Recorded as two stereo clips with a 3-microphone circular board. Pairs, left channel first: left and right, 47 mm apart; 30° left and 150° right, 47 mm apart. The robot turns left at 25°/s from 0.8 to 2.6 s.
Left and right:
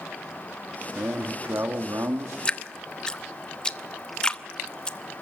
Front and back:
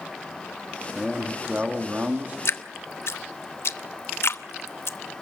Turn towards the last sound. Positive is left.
turn(degrees=20)